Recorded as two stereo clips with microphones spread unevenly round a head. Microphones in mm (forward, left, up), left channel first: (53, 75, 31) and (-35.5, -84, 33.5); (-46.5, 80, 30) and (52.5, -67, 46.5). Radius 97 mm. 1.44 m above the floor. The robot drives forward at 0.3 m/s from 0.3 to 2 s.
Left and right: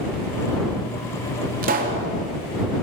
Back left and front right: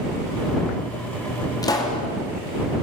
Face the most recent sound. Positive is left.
turn(degrees=-165)